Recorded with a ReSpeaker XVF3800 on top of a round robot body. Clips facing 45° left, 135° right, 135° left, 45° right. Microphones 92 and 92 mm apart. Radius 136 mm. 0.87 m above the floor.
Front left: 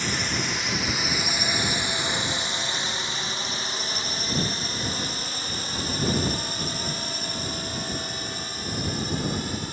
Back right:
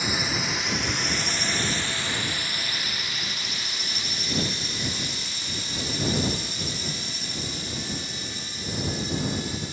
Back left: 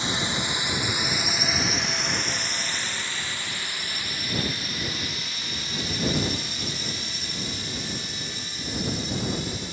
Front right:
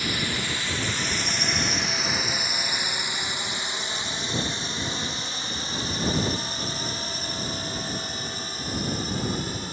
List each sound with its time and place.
0.0 s a drone: 155° left; by 9.8 s 5° left